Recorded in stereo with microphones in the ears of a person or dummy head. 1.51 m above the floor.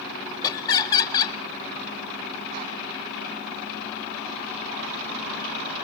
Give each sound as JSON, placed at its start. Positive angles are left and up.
{"t": 0.4, "sound": "laughter", "side_deg": 20, "distance_m": 1.2}